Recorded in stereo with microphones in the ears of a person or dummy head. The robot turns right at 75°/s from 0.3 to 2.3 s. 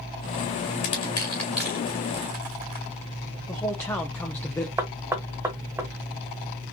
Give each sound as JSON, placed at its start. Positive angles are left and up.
{"t": 0.8, "sound": "crushing", "side_deg": 40, "distance_m": 1.6}
{"t": 3.5, "sound": "a man speaking", "side_deg": 15, "distance_m": 0.7}
{"t": 4.8, "sound": "knocking", "side_deg": -10, "distance_m": 1.1}